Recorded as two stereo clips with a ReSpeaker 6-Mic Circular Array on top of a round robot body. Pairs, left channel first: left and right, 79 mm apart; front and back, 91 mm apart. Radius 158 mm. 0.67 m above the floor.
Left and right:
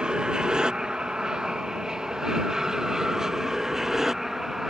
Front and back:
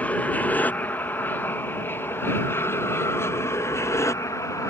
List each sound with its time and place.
0.0 s an aircraft: 35° right; by 4.7 s 5° right